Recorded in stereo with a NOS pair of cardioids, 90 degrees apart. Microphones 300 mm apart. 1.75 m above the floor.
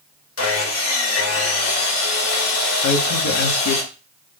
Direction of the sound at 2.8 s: 70° left.